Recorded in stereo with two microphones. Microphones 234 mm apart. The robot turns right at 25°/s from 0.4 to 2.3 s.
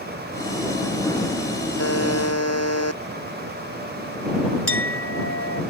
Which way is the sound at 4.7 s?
70° left (ahead or behind).